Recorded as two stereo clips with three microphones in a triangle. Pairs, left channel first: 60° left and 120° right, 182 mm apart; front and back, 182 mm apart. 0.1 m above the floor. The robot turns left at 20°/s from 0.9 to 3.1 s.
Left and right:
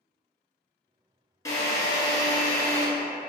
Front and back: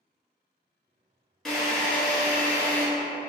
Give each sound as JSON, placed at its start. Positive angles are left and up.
{"t": 1.4, "sound": "a drill", "azimuth_deg": 85, "distance_m": 1.3}